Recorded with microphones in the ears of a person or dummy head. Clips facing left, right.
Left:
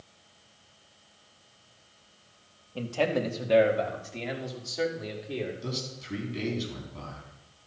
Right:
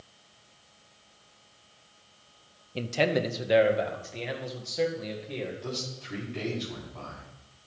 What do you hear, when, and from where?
2.8 s a man speaking: 30° right (ahead or behind), 0.8 m; by 5.5 s centre (ahead or behind), 2 m
5.6 s a man speaking: 20° left (ahead or behind), 4 m